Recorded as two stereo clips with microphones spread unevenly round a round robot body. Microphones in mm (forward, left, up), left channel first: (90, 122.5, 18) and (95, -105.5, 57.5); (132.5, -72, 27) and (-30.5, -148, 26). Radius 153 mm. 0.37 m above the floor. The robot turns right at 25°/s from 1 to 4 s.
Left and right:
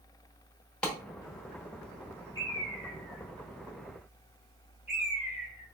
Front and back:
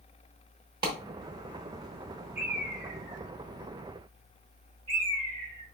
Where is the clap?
160° left, 0.9 m.